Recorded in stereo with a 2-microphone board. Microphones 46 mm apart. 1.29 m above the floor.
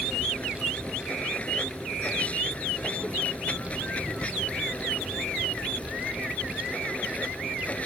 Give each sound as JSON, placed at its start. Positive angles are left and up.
{"t": 0.0, "sound": "running water", "side_deg": 30}